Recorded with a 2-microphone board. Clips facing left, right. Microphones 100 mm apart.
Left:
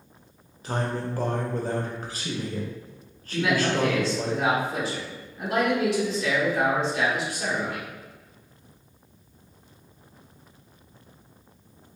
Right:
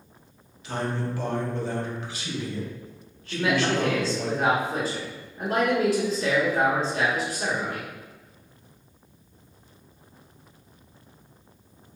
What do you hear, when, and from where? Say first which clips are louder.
0.6 s a man speaking: even; 40° left (ahead or behind), 0.8 m
3.3 s a man speaking: even; 40° right (ahead or behind), 1.5 m